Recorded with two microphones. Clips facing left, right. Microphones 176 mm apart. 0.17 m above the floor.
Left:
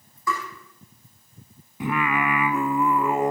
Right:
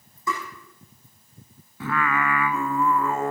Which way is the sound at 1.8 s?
15° left (ahead or behind).